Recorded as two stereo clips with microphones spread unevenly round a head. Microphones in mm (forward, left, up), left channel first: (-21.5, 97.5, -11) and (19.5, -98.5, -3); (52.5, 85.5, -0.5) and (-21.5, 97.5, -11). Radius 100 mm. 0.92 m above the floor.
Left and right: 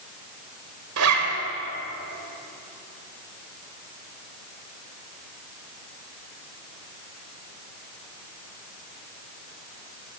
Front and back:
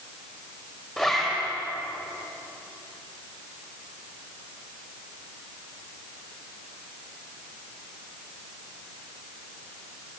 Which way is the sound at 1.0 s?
95° right.